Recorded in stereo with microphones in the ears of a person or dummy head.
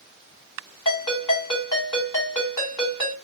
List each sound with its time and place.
0.8 s a ringtone: 20° left (ahead or behind), 1.7 m